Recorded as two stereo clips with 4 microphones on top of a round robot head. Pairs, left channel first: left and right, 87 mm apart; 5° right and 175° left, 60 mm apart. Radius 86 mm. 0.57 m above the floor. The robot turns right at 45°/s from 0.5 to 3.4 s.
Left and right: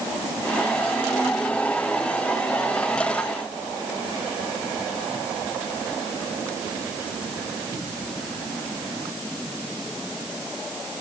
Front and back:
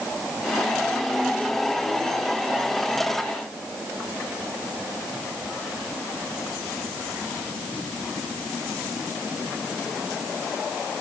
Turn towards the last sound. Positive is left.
No sound to turn to.